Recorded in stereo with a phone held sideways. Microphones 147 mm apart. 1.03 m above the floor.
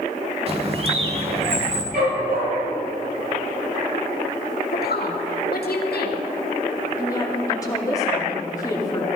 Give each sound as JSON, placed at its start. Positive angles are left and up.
{"t": 0.5, "sound": "a bird", "side_deg": -40, "distance_m": 1.6}
{"t": 1.9, "sound": "a dog barking", "side_deg": -75, "distance_m": 6.0}
{"t": 4.7, "sound": "a woman speaking", "side_deg": 85, "distance_m": 1.8}
{"t": 7.0, "sound": "a woman speaking", "side_deg": 20, "distance_m": 2.0}